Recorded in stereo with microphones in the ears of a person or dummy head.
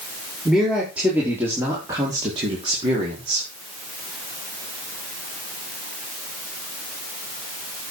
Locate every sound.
0.5 s a man speaking: 5° right (ahead or behind), 4.5 m; by 3.5 s 40° right (ahead or behind), 4.5 m